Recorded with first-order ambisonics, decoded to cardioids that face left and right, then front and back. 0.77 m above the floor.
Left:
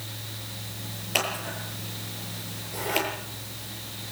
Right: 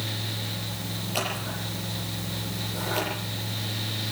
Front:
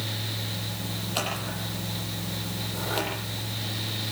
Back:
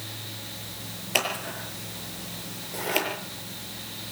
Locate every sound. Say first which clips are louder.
1.1 s scissors: left 3 dB, back 5 dB; 150° left, 8 m